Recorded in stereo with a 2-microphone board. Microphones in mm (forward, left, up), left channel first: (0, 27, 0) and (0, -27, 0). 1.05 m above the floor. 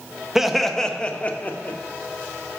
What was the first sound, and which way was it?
Laughter, 5° right (ahead or behind).